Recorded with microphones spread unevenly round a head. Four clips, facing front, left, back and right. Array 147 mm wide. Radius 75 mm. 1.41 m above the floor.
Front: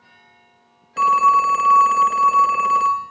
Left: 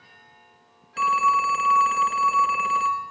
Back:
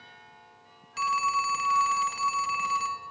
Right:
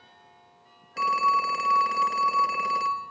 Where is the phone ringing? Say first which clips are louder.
Left 3 dB, front 12 dB; 5° left, 0.6 m.